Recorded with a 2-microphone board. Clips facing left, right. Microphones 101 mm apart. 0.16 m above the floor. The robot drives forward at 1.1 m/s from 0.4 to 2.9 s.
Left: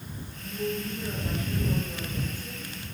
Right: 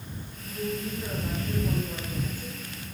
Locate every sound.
0.4 s a woman speaking: 30° right (ahead or behind), 9.5 m; by 2.7 s 35° right (ahead or behind), 7.5 m